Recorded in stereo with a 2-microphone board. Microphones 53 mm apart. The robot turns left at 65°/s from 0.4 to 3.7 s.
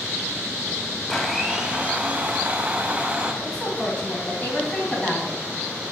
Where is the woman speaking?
15° left (ahead or behind), 1.6 m; by 5.4 s 25° left (ahead or behind), 1.6 m.